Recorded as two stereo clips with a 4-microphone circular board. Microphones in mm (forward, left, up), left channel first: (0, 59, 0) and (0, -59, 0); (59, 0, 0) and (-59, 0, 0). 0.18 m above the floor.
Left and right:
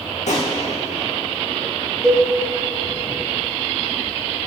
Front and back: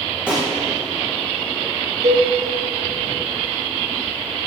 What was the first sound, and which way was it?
A gunshot, 100° left.